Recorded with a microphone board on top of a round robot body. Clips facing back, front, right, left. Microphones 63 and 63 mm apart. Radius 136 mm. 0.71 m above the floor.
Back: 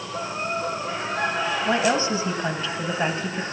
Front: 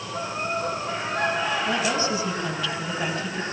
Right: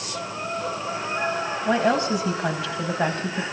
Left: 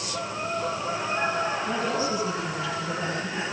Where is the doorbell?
I don't hear a doorbell.